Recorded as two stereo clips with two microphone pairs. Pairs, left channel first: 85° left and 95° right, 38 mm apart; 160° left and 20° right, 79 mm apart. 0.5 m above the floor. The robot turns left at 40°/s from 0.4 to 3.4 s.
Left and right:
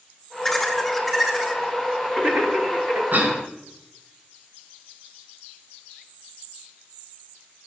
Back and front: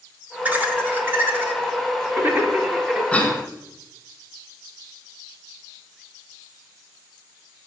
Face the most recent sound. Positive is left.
turn(degrees=-140)